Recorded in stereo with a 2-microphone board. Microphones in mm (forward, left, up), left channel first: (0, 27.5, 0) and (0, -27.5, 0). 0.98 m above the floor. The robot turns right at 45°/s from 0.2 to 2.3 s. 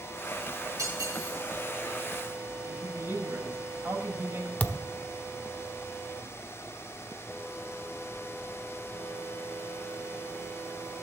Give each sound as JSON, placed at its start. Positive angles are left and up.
{"t": 0.8, "sound": "cutlery clinking", "side_deg": -85, "distance_m": 6.0}
{"t": 2.7, "sound": "a man speaking", "side_deg": -45, "distance_m": 5.0}
{"t": 4.6, "sound": "a thud", "side_deg": 25, "distance_m": 0.8}